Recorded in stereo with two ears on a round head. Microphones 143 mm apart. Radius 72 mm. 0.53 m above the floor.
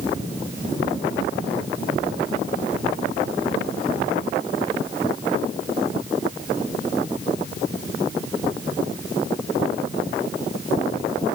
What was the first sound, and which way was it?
Only background noise.